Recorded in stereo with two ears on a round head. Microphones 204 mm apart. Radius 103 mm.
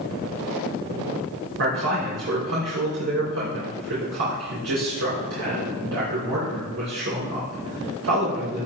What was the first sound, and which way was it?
A man speaking, 75° right (ahead or behind).